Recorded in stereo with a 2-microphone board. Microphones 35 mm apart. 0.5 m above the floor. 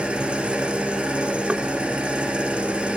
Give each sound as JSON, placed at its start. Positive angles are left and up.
{"t": 0.0, "sound": "an engine running", "side_deg": -30, "distance_m": 3.0}
{"t": 1.5, "sound": "knocking", "side_deg": -30, "distance_m": 0.9}